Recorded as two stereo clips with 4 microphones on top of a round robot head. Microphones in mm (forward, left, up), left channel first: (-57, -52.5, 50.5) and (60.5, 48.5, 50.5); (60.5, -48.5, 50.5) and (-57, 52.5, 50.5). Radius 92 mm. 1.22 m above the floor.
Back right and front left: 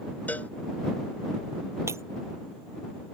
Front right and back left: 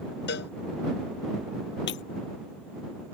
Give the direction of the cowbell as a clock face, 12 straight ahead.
2 o'clock.